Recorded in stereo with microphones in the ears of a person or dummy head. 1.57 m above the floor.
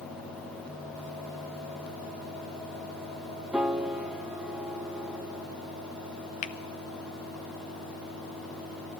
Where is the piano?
5° right (ahead or behind), 0.8 m.